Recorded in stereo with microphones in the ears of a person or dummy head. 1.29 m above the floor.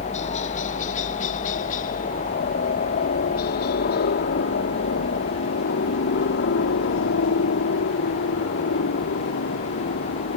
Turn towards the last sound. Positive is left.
turn(degrees=65)  # may be behind; listen again after turning